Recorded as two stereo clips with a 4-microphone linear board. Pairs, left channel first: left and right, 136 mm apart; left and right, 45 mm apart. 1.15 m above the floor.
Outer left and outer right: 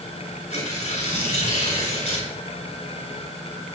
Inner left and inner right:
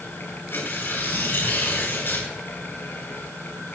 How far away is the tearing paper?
About 4.5 m.